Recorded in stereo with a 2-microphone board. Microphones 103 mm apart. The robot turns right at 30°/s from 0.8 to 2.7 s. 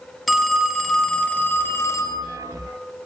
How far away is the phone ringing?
About 1.0 m.